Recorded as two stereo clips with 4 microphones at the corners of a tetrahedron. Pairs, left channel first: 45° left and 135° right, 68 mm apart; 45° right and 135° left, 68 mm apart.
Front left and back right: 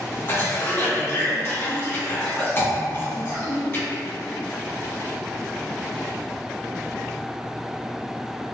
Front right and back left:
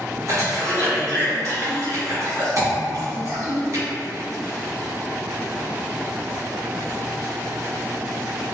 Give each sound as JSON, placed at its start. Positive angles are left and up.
{"t": 0.3, "sound": "a cough", "azimuth_deg": 95, "distance_m": 1.6}